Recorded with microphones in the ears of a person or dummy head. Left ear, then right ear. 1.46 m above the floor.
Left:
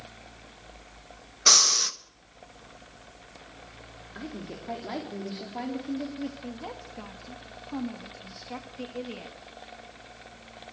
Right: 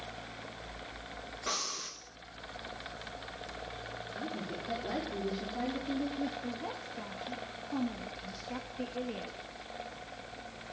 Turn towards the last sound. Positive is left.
turn(degrees=15)  # may be behind; listen again after turning